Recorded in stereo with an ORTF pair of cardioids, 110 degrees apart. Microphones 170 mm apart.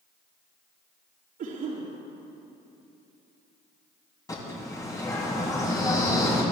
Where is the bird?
20° left, 5.5 m.